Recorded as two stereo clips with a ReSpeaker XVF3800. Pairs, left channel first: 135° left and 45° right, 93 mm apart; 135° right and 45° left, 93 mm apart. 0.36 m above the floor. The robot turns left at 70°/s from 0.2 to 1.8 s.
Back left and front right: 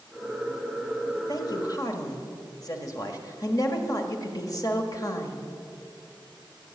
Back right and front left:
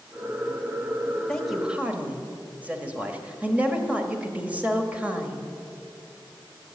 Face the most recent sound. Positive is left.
turn(degrees=110)